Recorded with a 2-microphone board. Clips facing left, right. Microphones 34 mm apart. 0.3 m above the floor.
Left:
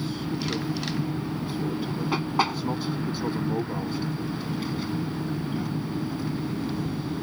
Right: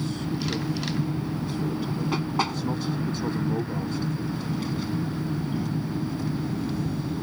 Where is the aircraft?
10° left (ahead or behind).